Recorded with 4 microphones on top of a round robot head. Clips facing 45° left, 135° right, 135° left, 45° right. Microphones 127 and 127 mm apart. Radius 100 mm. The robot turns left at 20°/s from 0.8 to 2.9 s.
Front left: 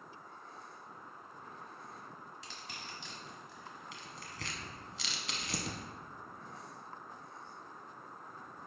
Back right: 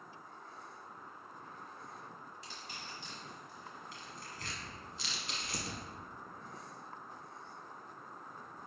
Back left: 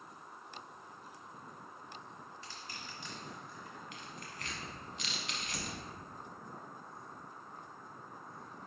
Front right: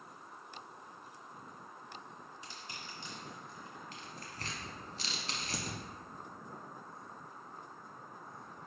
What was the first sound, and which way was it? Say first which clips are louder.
Crushing: even, even; 35° left.